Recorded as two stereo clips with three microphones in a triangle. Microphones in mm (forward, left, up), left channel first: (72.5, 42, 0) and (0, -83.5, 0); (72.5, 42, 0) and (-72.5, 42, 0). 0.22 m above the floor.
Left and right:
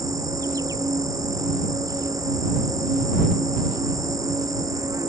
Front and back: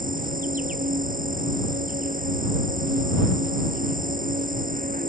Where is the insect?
175° left.